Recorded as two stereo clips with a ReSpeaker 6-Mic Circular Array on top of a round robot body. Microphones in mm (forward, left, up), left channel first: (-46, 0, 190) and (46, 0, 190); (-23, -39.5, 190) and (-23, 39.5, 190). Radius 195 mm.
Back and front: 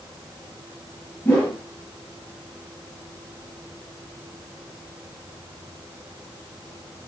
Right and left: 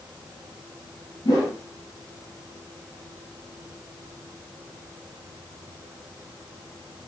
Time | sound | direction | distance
1.2 | a whoosh | 115° right | 3 m